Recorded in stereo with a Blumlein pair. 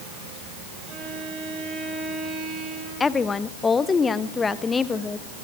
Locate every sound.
0.9 s a violin: 25° right, 9 m
3.0 s a woman speaking: 15° left, 1.1 m